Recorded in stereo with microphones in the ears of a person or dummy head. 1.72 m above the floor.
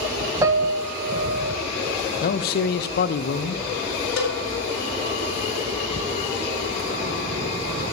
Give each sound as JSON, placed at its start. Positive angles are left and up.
{"t": 0.4, "sound": "a piano", "side_deg": -15, "distance_m": 0.8}
{"t": 2.2, "sound": "a man speaking", "side_deg": 55, "distance_m": 0.5}
{"t": 4.2, "sound": "a cowbell", "side_deg": 55, "distance_m": 1.5}